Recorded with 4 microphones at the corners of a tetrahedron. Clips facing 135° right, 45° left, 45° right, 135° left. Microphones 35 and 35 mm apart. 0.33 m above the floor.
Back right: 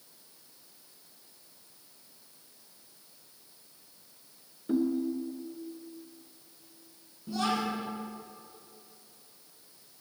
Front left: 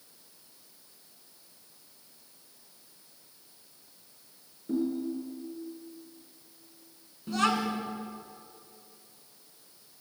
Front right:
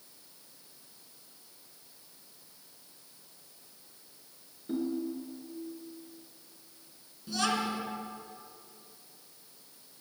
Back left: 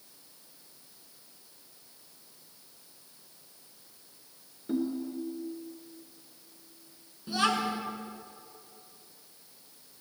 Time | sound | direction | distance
4.7 | a ringtone | 155° right | 1.8 m
7.3 | a child speaking | 65° left | 2.5 m